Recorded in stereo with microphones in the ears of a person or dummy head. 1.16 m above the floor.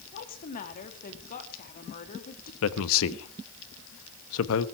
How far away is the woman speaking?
About 2.5 m.